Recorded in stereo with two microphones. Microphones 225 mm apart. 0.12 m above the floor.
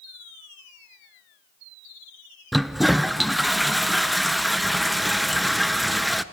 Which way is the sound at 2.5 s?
Centre (ahead or behind).